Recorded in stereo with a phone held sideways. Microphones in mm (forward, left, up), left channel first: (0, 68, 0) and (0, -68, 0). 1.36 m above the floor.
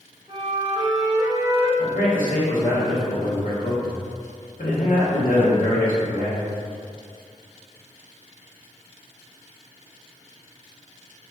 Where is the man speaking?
80° left, 0.8 m.